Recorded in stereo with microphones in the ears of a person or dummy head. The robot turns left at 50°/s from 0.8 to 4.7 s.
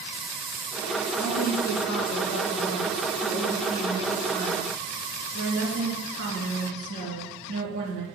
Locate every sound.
1.2 s a woman speaking: 115° left, 3 m; by 8.1 s 60° right, 3 m